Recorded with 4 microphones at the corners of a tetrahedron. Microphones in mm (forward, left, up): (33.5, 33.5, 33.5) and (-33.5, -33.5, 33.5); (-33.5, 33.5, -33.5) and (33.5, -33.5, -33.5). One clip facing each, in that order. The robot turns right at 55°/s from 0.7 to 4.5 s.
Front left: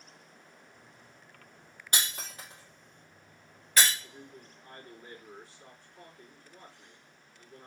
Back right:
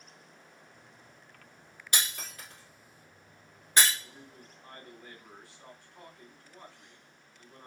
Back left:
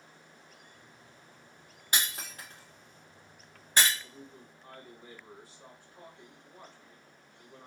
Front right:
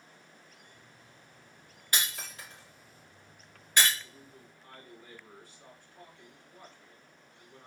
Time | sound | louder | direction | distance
1.9 | breaking glass | even, back left 1 dB | 75° left | 2.5 m
4.0 | a man speaking | front left 2 dB, back left 3 dB | 175° left | 2.5 m